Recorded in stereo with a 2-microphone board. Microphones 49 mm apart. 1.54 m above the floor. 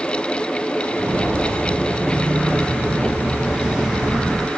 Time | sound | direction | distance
0.9 | footsteps | 50° right (ahead or behind) | 2.5 m